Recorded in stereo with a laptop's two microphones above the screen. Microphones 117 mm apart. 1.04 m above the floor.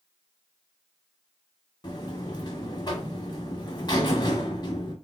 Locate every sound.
1.8 s a buzzer: 40° left (ahead or behind), 1.1 m